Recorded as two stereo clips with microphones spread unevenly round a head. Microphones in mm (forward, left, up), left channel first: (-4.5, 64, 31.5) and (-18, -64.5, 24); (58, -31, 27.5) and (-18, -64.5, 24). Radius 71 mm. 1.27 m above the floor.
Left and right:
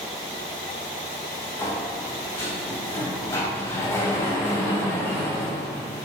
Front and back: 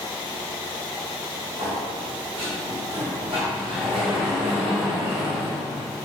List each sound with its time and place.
1.6 s a sliding door: 150° left, 2.5 m